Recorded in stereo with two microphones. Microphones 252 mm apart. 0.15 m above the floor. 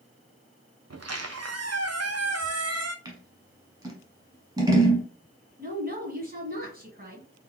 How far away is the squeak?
About 0.6 m.